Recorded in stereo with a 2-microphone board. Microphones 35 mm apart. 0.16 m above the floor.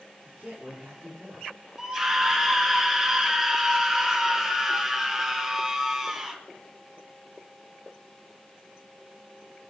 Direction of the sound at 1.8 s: 10° right (ahead or behind).